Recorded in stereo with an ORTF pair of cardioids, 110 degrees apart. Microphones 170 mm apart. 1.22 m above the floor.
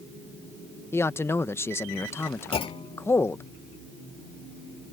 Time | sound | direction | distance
0.9 | a man speaking | 15° left | ?
2.5 | a clunk | 35° left | ?